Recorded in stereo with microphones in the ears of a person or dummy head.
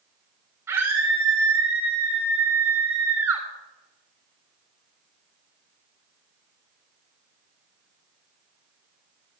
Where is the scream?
15° right (ahead or behind), 6 m.